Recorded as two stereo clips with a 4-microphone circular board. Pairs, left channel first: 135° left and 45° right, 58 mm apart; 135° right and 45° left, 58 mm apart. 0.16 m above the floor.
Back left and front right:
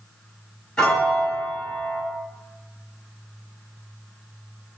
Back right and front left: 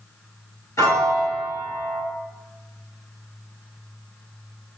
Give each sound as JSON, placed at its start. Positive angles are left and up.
{"t": 0.8, "sound": "a piano", "azimuth_deg": -150, "distance_m": 1.5}